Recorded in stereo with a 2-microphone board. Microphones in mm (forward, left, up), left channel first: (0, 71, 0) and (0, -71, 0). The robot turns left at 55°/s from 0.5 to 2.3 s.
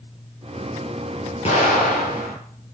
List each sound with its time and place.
1.4 s an explosion: 130° left, 6.5 m; by 2.4 s 85° left, 6.5 m